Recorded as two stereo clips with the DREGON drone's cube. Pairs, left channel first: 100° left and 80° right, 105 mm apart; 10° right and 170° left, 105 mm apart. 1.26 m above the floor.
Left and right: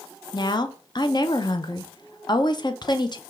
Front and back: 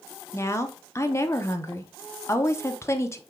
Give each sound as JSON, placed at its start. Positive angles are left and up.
{"t": 0.3, "sound": "a woman speaking", "azimuth_deg": 50, "distance_m": 0.6}